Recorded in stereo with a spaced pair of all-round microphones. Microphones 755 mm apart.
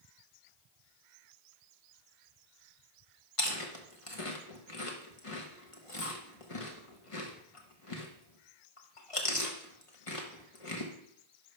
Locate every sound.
3.4 s chewing: 45° left (ahead or behind), 1.3 m